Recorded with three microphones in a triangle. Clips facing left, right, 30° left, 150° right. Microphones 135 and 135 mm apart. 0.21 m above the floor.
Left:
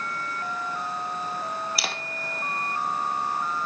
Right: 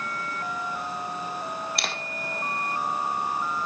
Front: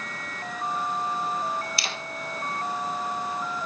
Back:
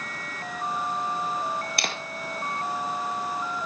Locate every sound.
1.8 s a camera shutter: 175° left, 1.3 m